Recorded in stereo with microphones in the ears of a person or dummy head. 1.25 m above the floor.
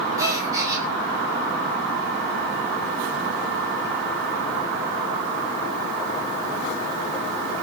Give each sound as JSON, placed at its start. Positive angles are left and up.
{"t": 0.2, "sound": "a gasp", "side_deg": -20, "distance_m": 2.0}